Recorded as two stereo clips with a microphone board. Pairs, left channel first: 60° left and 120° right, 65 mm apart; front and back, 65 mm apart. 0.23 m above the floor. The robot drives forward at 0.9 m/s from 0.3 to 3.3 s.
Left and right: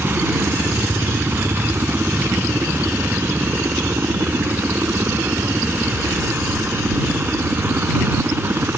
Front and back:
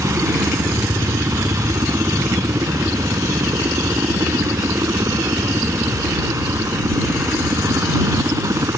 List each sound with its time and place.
0.0 s a helicopter: 165° right